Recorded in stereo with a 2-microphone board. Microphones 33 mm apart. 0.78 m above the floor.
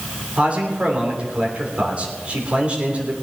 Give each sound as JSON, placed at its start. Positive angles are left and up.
{"t": 0.4, "sound": "a man speaking", "side_deg": -40, "distance_m": 3.0}